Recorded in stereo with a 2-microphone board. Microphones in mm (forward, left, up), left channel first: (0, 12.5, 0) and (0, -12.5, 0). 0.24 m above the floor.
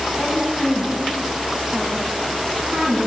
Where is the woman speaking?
10° left (ahead or behind), 2.0 m; by 3.1 s 45° right (ahead or behind), 2.5 m.